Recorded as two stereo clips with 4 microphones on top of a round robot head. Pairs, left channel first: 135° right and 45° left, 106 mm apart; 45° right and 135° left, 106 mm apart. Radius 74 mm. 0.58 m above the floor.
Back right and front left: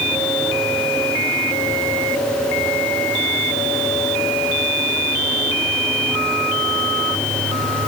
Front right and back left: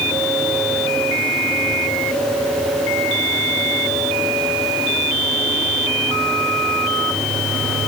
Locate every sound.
Only background noise.